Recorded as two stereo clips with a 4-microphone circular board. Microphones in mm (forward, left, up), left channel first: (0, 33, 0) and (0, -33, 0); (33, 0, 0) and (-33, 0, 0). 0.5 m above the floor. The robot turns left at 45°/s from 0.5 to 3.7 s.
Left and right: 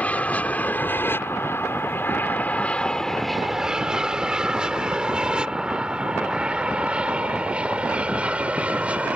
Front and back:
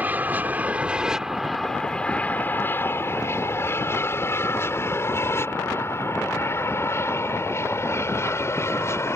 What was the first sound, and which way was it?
An aircraft, 140° left.